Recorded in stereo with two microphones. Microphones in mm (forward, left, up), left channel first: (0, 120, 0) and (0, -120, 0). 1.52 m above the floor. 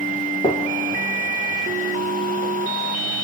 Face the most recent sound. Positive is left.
turn(degrees=20)  # may be behind; listen again after turning